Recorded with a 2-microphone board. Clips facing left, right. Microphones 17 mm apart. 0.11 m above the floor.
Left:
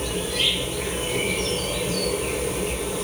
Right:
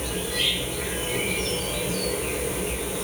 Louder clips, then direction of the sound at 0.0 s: Left 2 dB; 15° left (ahead or behind).